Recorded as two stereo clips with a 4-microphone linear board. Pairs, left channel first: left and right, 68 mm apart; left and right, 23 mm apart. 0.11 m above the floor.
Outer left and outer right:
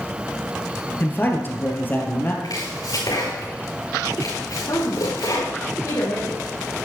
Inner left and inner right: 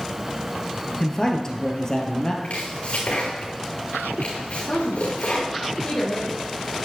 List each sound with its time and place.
1.0 s a man speaking: 30° left (ahead or behind), 1.9 m
2.4 s chopping: 70° left (ahead or behind), 5.5 m
4.7 s a woman speaking: 55° left (ahead or behind), 4 m